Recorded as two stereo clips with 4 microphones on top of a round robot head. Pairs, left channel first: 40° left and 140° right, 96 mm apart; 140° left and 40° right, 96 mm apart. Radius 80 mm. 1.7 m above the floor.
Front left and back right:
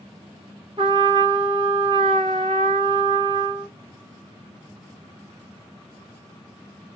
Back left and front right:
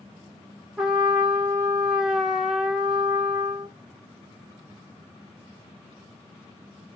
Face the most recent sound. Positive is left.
turn(degrees=-125)